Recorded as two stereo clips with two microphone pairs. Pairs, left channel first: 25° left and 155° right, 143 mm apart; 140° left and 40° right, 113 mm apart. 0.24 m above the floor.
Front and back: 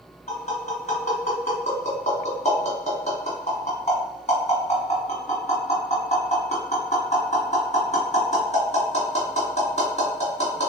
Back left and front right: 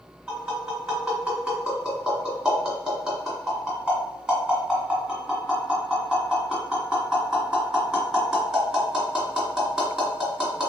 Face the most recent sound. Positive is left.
turn(degrees=35)